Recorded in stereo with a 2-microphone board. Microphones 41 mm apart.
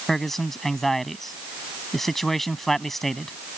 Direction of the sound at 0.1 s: 5° left (ahead or behind).